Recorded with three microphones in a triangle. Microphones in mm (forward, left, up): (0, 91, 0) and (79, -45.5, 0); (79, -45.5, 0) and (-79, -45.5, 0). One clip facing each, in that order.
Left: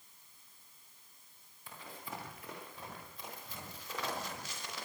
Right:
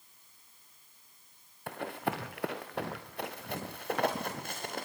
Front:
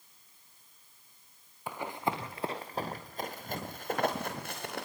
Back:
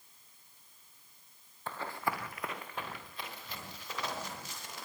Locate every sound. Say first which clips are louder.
1.7 s running footsteps: right 13 dB, front 3 dB; 80° right, 2.5 m; by 4.9 s 25° right, 4 m